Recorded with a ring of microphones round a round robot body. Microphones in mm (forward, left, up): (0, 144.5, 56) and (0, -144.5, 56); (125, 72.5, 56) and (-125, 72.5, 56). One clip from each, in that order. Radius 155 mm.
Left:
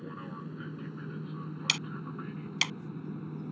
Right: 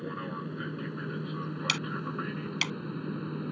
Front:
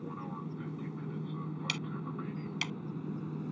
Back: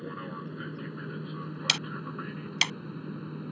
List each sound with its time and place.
0.0 s an aircraft: 150° right; by 3.5 s 120° right
1.7 s ticking: 165° left